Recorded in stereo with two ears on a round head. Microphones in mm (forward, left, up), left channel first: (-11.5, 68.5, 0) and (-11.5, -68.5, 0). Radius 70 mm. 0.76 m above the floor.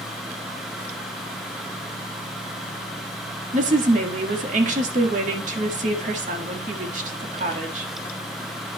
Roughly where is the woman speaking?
Right.